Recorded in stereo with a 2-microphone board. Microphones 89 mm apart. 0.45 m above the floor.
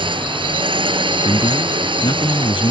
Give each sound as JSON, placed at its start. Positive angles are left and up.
{"t": 0.0, "sound": "a drone", "side_deg": -80}
{"t": 1.2, "sound": "a man speaking", "side_deg": 80}